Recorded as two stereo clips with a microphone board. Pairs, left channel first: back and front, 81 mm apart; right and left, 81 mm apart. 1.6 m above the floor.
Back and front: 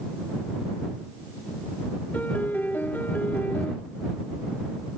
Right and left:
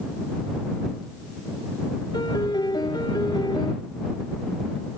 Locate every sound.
2.1 s a piano: 110° right